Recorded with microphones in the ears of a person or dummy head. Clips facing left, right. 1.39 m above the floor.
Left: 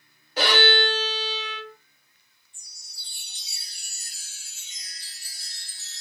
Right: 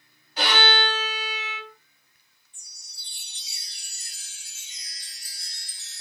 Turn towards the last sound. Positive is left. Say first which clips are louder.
# left 1 dB
turn(degrees=35)  # may be behind; listen again after turning